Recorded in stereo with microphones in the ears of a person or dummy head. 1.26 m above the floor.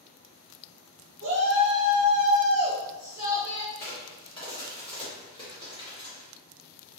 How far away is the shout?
About 0.8 m.